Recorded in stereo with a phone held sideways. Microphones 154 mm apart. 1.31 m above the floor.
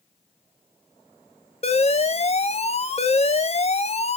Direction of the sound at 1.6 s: 45° left (ahead or behind).